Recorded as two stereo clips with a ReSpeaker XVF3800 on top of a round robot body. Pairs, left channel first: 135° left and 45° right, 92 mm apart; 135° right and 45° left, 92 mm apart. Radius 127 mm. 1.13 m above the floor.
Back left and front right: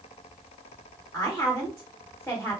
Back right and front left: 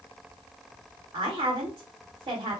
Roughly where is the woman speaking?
Ahead left.